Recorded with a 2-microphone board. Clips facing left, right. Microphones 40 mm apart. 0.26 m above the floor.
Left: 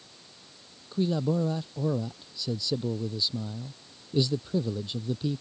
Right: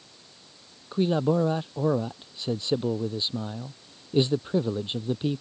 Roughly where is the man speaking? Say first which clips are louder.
Right 4 dB; right.